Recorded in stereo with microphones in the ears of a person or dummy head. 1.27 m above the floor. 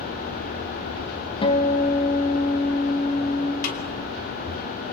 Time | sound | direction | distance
1.4 | a guitar | 30° left (ahead or behind) | 1.7 m
3.6 | a snare drum | 55° left (ahead or behind) | 2.5 m